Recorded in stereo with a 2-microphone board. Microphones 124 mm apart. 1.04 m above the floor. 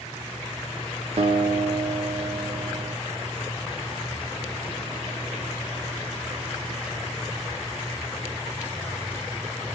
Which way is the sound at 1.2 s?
50° right (ahead or behind).